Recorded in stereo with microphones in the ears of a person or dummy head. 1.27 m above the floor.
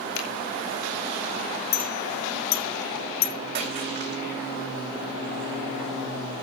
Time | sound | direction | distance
0.1 | a finger snap | 80° left | 5 m
1.7 | a clink | 50° left (ahead or behind) | 1.0 m
3.5 | a splash | 50° right (ahead or behind) | 4 m